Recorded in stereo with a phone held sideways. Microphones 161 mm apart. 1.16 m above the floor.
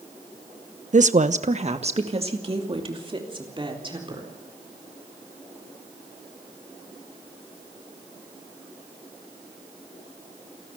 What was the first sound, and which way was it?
A woman speaking, 55° right (ahead or behind).